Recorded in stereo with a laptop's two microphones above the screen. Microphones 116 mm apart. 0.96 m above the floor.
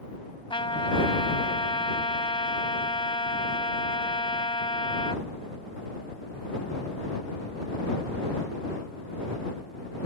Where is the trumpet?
50° left (ahead or behind).